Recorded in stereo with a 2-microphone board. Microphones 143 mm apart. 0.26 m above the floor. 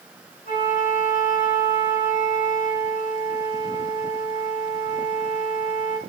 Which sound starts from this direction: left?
A flute, at 0.5 s.